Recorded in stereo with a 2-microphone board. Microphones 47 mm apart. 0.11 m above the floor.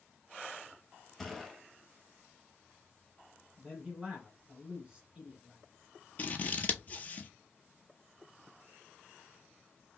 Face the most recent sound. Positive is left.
turn(degrees=35)  # may be behind; listen again after turning